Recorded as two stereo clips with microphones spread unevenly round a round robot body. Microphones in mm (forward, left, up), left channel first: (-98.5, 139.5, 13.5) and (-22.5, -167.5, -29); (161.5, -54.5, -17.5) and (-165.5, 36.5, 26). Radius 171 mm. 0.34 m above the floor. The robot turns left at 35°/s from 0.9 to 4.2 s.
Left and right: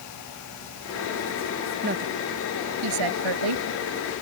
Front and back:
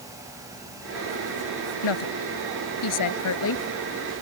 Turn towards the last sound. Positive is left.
turn(degrees=-90)